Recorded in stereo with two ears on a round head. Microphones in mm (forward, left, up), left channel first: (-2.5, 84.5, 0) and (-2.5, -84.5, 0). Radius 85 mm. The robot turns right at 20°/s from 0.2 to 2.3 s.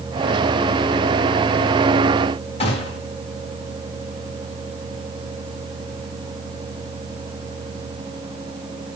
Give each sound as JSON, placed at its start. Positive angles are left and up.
{"t": 2.6, "sound": "a gunshot", "side_deg": 35, "distance_m": 2.5}